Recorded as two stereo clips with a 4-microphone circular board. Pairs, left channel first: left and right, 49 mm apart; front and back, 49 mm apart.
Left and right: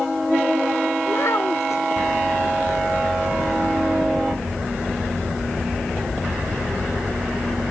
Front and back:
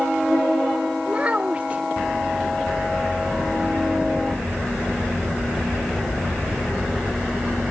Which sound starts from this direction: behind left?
A child speaking, at 1.1 s.